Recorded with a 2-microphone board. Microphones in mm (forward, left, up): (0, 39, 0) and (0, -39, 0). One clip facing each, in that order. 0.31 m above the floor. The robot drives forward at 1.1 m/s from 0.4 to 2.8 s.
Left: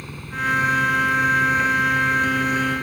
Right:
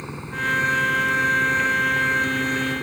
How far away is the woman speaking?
I don't hear a woman speaking.